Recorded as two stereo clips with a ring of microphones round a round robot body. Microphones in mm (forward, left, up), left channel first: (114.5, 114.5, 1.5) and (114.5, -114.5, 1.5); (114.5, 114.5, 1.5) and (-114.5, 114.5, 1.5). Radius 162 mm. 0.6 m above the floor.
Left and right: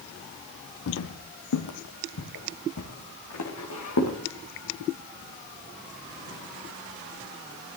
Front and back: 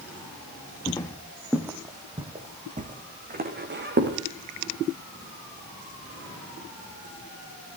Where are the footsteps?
75° left, 1.5 m; by 4.2 s 135° left, 3 m.